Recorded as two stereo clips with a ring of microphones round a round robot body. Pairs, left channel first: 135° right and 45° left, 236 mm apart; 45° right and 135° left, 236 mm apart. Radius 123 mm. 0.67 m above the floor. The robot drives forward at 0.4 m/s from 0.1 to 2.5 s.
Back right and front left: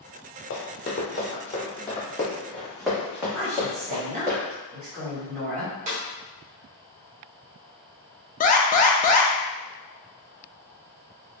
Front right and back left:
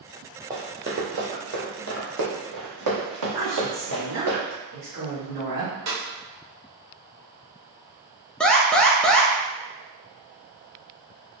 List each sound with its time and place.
0.5 s running footsteps: 155° right, 0.9 m; by 4.3 s 110° left, 2.0 m
3.3 s a woman speaking: 100° left, 2.0 m
5.9 s a snare drum: 105° left, 1.2 m
8.4 s an alarm: 130° right, 0.5 m